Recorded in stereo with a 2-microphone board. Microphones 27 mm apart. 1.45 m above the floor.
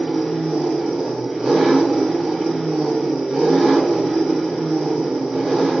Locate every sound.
0.0 s an engine running: 35° right (ahead or behind), 1.1 m